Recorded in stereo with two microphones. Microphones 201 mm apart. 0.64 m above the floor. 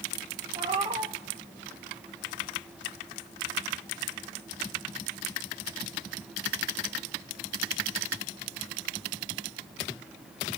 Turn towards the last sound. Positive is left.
turn(degrees=-30)  # may be behind; listen again after turning